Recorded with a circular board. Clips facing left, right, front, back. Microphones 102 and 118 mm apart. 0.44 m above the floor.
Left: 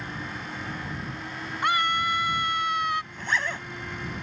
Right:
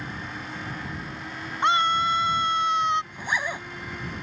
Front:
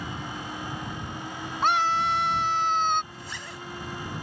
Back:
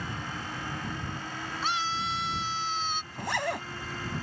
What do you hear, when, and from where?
1.6 s a scream: 25° right
3.1 s a zipper: 165° right